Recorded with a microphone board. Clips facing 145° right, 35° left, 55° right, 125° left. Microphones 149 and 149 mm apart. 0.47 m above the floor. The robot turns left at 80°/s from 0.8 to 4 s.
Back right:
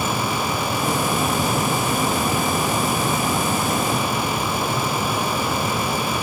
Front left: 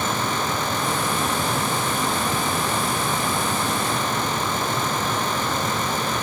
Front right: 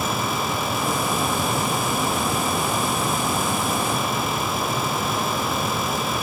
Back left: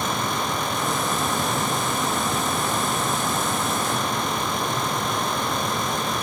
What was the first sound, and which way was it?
Only background noise.